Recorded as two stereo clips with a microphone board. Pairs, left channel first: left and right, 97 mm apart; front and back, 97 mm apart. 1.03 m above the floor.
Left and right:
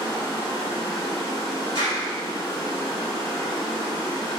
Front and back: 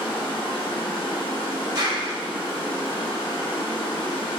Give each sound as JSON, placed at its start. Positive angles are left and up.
{"t": 0.0, "sound": "running water", "azimuth_deg": 35, "distance_m": 0.8}
{"t": 1.8, "sound": "a clap", "azimuth_deg": 135, "distance_m": 1.6}